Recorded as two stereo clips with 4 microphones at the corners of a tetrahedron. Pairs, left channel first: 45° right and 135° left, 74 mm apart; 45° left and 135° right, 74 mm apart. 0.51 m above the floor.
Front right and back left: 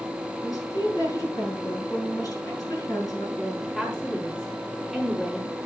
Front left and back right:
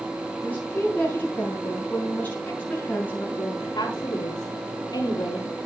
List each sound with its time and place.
0.4 s a woman speaking: 20° right, 5 m
3.4 s a woman speaking: 35° left, 4 m